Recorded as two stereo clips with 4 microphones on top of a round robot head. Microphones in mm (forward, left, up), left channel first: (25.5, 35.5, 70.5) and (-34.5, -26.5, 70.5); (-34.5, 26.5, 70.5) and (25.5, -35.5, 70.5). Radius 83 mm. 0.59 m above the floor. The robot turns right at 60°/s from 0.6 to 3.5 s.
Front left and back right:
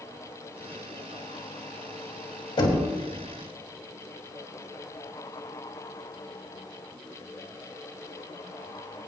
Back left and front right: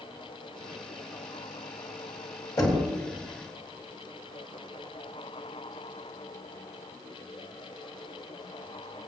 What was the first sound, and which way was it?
Knocking, 80° left.